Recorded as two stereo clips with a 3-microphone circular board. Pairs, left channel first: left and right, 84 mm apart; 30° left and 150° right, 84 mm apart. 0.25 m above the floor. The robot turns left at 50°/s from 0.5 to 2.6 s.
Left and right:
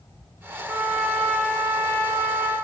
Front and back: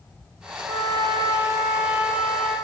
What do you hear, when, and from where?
0.6 s a trumpet: 165° right, 6 m; by 2.5 s 100° left, 6 m